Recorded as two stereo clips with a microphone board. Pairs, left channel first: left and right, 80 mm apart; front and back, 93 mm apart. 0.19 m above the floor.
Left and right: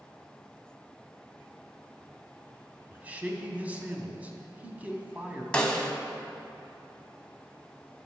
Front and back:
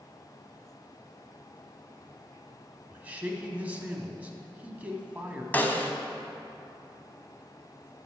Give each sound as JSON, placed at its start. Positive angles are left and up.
{"t": 2.9, "sound": "a man speaking", "azimuth_deg": -130, "distance_m": 1.1}
{"t": 5.5, "sound": "a snare drum", "azimuth_deg": 30, "distance_m": 0.9}